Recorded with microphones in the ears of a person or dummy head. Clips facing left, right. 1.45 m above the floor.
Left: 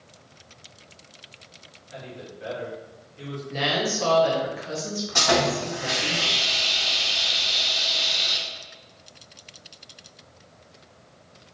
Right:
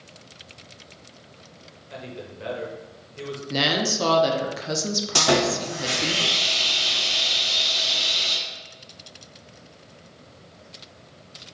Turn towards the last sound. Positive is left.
turn(degrees=-40)  # may be behind; listen again after turning